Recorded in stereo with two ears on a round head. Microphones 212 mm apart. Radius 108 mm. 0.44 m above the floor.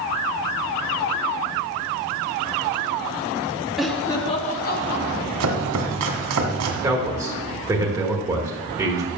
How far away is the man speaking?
About 1.4 m.